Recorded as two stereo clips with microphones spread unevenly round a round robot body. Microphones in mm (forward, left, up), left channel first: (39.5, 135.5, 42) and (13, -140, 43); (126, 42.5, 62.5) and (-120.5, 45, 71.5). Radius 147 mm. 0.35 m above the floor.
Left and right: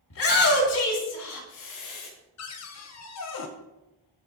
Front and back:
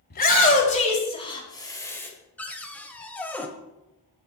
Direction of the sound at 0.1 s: 45° left.